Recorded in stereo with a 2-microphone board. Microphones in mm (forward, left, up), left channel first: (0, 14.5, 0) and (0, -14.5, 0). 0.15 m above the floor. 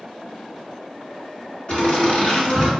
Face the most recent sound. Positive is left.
turn(degrees=35)  # may be behind; listen again after turning